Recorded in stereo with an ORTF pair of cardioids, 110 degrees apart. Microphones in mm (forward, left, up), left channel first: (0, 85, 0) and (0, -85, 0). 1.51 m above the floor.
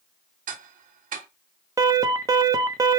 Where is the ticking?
55° right, 0.8 m.